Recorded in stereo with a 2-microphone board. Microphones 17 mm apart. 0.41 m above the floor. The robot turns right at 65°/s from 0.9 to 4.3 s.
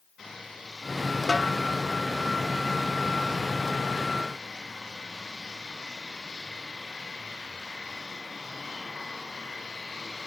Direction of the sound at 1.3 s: Centre (ahead or behind).